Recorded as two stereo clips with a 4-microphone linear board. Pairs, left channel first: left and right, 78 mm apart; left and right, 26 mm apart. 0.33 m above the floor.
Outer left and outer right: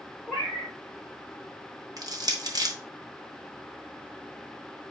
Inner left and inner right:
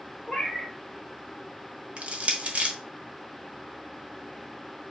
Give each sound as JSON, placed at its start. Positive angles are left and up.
{"t": 0.3, "sound": "a cat meowing", "side_deg": -5, "distance_m": 1.6}
{"t": 2.0, "sound": "crushing", "side_deg": -55, "distance_m": 1.4}